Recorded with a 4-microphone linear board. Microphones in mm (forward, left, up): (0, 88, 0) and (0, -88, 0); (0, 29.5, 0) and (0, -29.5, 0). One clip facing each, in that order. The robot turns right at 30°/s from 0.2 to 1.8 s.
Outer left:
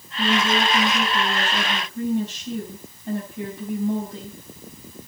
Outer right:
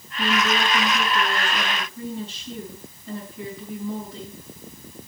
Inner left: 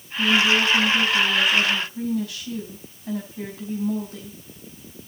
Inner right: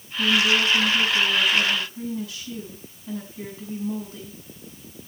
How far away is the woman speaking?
About 4.5 m.